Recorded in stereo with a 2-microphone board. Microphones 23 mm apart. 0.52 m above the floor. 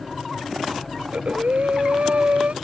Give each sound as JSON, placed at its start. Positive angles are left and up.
{"t": 1.0, "sound": "breathing", "side_deg": -70}